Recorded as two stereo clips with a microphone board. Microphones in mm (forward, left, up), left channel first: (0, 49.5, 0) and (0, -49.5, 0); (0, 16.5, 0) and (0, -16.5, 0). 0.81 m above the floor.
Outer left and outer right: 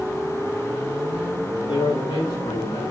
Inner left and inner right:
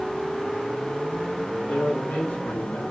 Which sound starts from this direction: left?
A man speaking, at 1.7 s.